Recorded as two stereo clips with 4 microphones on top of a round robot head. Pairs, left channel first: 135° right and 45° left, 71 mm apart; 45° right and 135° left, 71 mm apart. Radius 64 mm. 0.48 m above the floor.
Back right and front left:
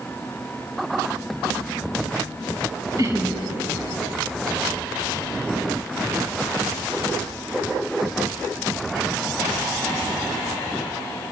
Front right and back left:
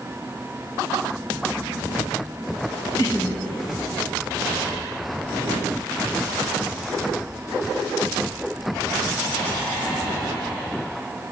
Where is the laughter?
Straight ahead, 5 m.